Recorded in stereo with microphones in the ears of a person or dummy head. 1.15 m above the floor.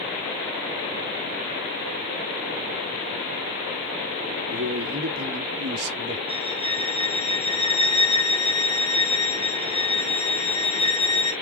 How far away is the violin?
About 1.6 m.